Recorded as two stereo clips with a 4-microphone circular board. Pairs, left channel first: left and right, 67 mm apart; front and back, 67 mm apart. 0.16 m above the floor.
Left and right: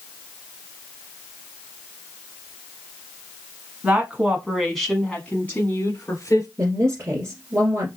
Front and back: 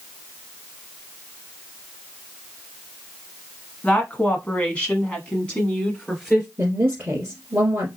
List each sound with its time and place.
3.8 s a woman speaking: 50° right, 1.2 m; by 6.5 s 80° left, 1.5 m
6.6 s a woman speaking: 125° right, 2 m